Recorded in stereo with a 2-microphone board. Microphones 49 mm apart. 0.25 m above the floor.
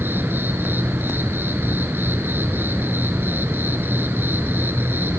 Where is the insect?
45° right (ahead or behind), 2.5 m.